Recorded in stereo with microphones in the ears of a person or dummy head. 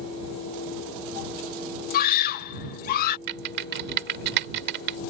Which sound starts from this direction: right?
Typing on a keyboard, at 3.3 s.